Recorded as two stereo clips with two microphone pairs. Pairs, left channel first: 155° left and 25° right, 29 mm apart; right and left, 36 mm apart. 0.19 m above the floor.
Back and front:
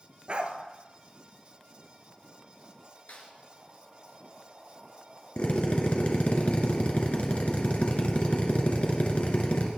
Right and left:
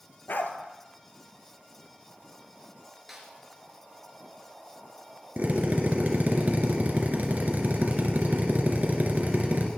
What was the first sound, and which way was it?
A dog barking, 75° right.